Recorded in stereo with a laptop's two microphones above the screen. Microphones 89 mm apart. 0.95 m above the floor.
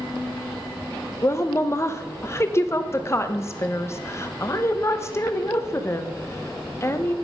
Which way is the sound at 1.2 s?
30° left (ahead or behind).